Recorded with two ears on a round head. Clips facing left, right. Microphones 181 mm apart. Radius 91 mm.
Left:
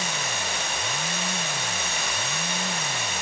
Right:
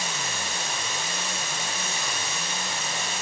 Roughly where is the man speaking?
No man speaking in this recording.